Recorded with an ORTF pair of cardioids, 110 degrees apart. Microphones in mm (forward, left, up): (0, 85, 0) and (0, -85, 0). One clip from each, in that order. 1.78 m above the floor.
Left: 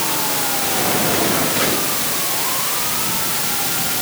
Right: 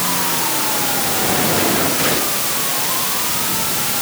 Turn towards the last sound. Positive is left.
No sound to turn to.